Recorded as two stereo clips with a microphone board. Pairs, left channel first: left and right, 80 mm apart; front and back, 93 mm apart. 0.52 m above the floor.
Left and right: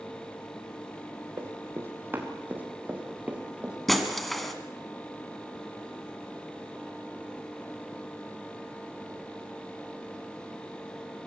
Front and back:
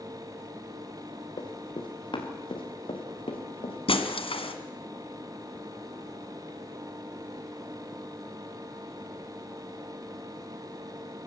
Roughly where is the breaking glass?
Ahead.